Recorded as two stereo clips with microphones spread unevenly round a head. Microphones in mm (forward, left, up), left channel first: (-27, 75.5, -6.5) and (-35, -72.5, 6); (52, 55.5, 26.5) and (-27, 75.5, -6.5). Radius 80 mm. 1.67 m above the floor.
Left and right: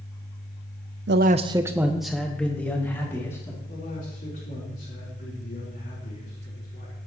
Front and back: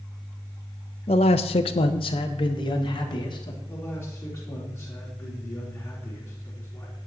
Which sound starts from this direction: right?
A man speaking, at 1.1 s.